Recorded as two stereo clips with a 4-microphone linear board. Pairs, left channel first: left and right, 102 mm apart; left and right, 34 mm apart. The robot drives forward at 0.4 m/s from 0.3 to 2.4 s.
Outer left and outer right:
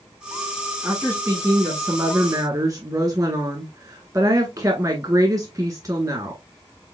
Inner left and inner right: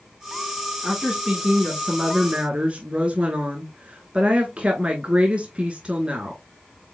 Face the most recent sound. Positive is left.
turn(degrees=-35)  # may be behind; listen again after turning